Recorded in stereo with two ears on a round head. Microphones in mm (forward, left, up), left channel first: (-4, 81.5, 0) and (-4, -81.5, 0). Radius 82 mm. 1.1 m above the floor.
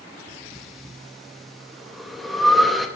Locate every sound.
0.5 s breathing: centre (ahead or behind), 0.8 m